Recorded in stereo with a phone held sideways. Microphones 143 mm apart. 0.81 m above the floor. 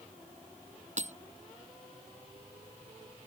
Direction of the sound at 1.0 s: 55° right (ahead or behind).